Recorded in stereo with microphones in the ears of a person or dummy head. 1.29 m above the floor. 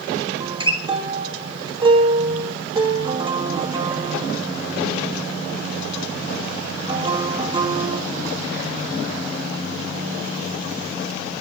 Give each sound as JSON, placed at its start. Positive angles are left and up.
{"t": 0.4, "sound": "a guitar", "side_deg": -25, "distance_m": 1.4}